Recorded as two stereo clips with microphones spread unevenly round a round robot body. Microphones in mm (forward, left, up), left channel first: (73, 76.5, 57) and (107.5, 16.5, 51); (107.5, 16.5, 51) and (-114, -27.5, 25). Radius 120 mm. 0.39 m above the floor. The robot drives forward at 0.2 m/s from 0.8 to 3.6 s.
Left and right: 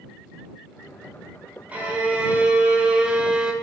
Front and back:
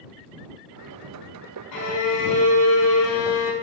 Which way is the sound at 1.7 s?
10° left.